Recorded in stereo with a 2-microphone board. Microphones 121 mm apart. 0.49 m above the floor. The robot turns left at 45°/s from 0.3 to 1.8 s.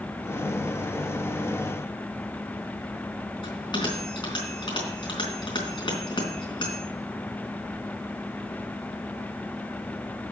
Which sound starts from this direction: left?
A bell, at 3.4 s.